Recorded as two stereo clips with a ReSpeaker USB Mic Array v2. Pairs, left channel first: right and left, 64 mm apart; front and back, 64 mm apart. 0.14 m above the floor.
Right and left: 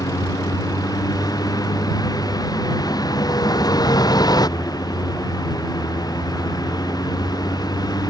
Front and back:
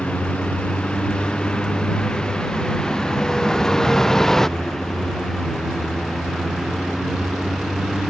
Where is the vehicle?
75° right; by 8.1 s 90° right.